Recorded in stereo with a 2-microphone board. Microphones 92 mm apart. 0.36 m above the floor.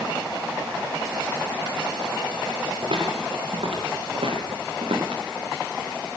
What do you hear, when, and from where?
2.8 s footsteps: 75° right (ahead or behind), 10 m; by 5.2 s 90° right, 9 m